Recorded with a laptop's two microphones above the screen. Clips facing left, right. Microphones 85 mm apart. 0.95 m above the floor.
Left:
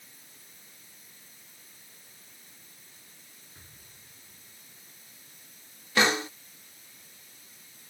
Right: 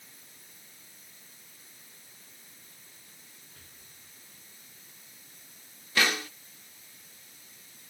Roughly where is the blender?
I don't hear a blender.